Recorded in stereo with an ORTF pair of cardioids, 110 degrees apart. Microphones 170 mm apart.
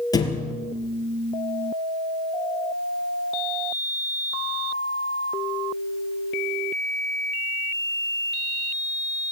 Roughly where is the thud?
Ahead left.